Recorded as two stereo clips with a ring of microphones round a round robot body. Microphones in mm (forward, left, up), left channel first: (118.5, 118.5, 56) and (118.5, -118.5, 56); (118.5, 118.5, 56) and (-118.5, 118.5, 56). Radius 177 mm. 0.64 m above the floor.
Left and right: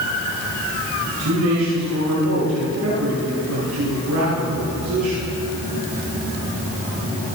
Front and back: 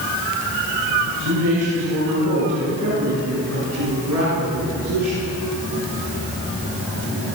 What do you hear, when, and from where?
1.0 s a man speaking: 140° right, 9 m